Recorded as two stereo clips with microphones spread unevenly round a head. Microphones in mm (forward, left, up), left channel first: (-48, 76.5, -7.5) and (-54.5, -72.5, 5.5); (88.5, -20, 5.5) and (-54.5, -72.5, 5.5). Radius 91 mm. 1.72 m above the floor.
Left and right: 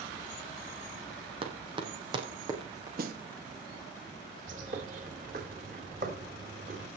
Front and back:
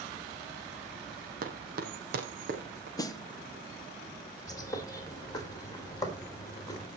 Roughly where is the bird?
Ahead right.